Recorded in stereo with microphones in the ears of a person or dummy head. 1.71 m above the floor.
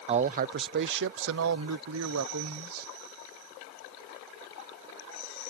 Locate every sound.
0.1 s a man speaking: 35° right (ahead or behind); by 2.9 s 85° right